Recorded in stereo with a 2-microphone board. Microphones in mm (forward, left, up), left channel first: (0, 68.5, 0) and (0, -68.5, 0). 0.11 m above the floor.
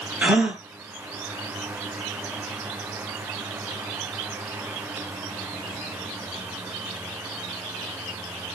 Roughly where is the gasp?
Centre.